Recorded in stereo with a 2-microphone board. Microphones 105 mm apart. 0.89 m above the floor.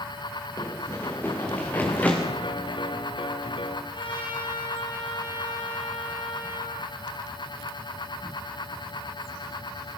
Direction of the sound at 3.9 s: 55° left (ahead or behind).